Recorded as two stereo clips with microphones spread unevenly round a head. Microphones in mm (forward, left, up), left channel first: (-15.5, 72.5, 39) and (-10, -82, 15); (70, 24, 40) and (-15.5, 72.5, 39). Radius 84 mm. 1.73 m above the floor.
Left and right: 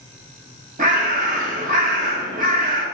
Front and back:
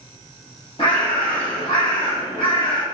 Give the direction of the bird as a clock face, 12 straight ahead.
2 o'clock.